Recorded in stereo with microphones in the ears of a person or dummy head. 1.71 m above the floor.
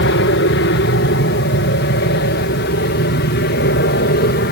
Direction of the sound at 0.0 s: 60° left (ahead or behind).